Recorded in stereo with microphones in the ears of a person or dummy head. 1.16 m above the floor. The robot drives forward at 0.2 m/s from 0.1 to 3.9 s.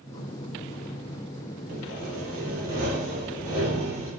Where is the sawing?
40° right (ahead or behind), 0.7 m.